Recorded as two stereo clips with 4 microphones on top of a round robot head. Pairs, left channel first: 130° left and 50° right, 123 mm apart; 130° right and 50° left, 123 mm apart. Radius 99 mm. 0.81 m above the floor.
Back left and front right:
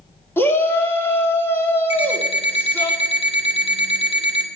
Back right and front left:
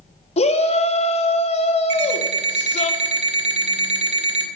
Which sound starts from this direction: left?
An alarm clock, at 1.9 s.